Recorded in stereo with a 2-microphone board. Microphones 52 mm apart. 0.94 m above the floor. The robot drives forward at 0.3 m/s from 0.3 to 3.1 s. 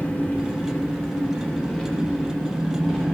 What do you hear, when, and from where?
0.0 s an engine running: 35° left (ahead or behind), 1.2 m; by 3.1 s 20° left (ahead or behind), 2.0 m